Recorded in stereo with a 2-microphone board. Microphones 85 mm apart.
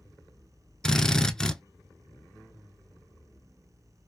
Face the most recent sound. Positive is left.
turn(degrees=10)  # may be behind; listen again after turning